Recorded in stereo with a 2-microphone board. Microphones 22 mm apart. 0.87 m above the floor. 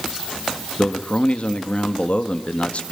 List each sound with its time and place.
0.8 s a man speaking: 55° left (ahead or behind), 1.7 m